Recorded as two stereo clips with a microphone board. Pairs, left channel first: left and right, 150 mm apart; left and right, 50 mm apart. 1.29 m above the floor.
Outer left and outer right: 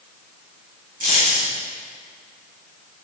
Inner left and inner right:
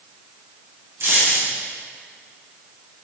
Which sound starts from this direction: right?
A dropped coin, at 1.0 s.